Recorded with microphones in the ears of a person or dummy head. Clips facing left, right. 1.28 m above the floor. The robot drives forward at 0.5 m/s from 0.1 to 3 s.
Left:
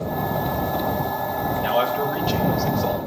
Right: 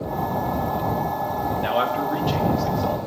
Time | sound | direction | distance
1.6 | a man speaking | 25° right (ahead or behind) | 1.9 m